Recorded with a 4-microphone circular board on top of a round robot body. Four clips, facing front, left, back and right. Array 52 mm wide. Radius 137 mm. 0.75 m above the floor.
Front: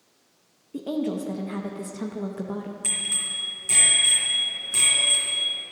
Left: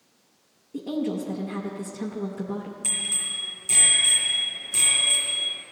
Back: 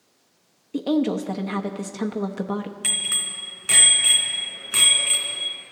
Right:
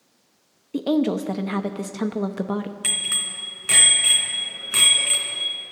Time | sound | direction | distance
0.7 | a woman speaking | 120° right | 0.8 m
2.8 | a bicycle bell | 125° right | 3.5 m